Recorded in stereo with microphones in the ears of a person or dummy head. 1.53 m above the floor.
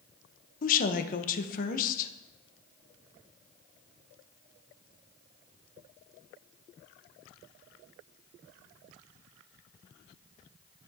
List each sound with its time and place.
0.6 s a woman speaking: 45° left (ahead or behind), 0.9 m